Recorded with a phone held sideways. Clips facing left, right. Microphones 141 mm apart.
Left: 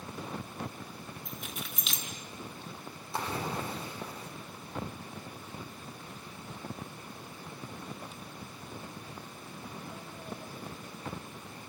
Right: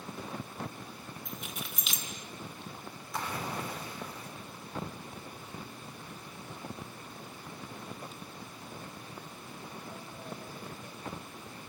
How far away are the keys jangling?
About 3.5 m.